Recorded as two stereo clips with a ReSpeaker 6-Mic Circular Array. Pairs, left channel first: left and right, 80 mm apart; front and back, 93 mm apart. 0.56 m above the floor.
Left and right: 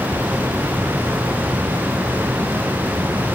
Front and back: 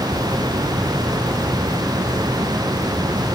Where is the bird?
No bird in this recording.